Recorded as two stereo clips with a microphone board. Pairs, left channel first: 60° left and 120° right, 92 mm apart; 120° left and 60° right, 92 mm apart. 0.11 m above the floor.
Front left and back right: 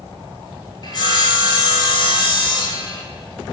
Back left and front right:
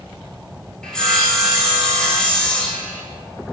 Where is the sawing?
40° left, 0.6 m.